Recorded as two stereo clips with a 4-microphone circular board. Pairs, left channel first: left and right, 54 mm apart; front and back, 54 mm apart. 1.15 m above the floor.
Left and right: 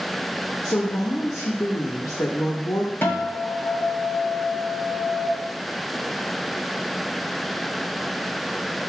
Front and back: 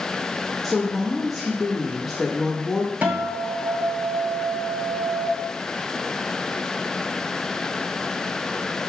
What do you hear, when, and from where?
0.6 s a woman speaking: 90° left, 1.3 m
3.0 s a guitar: 125° left, 1.6 m